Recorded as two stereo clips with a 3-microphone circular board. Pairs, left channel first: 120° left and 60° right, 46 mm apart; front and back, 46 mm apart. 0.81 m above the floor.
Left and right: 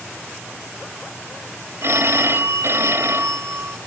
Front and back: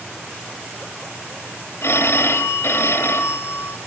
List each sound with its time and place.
1.8 s a phone ringing: 30° right, 2.5 m